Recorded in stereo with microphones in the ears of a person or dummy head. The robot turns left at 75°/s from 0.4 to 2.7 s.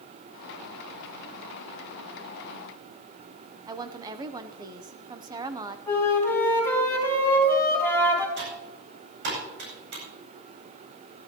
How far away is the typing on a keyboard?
About 9 m.